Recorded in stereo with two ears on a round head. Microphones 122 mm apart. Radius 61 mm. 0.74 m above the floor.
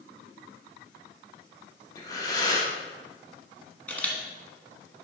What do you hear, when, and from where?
1.9 s breathing: 25° left (ahead or behind), 1.1 m
3.9 s a camera shutter: 10° left (ahead or behind), 1.3 m